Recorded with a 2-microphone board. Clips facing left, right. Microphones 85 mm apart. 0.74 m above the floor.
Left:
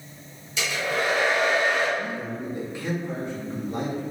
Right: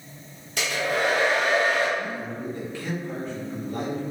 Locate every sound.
0.6 s a hair dryer: 55° right (ahead or behind), 1.6 m
2.0 s a man speaking: 15° left (ahead or behind), 1.3 m